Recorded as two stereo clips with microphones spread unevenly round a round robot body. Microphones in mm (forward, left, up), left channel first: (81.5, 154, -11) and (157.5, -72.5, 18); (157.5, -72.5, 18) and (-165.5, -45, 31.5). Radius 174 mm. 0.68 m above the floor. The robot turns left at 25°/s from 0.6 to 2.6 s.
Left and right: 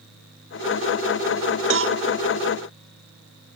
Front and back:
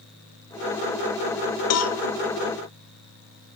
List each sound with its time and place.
1.7 s a cowbell: 35° right, 0.9 m; by 2.0 s 45° right, 0.9 m